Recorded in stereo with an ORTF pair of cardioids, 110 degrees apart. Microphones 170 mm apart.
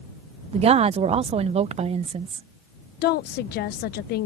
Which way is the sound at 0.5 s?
40° right.